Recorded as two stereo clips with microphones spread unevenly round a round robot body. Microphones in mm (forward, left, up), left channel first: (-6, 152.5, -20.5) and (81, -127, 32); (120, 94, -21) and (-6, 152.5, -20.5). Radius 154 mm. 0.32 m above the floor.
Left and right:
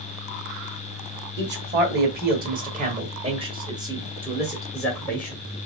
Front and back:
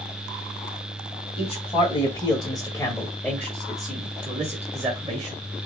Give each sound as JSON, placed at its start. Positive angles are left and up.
{"t": 1.4, "sound": "a man speaking", "azimuth_deg": -25, "distance_m": 1.9}